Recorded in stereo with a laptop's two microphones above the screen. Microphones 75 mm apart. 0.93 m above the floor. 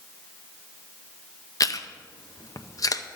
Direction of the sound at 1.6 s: 50° left (ahead or behind).